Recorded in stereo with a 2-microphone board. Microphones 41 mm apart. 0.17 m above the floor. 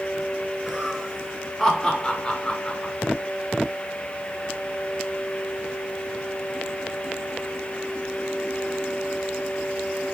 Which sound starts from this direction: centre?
Laughter, at 0.7 s.